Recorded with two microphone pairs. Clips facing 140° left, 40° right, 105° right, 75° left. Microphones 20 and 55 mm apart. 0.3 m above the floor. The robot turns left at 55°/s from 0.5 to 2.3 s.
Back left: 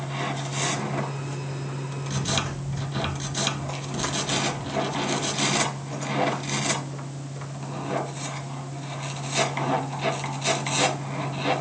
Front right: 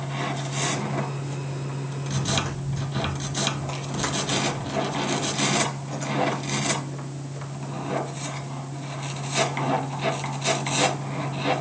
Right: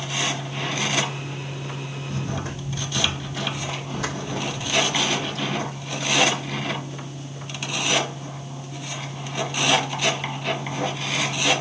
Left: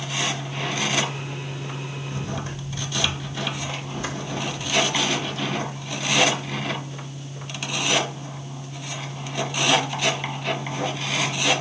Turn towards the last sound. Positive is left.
turn(degrees=-120)